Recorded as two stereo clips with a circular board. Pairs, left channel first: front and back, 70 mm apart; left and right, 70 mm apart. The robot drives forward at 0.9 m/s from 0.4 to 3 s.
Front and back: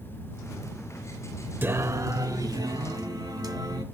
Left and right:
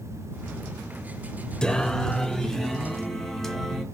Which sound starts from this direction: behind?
Singing, at 1.6 s.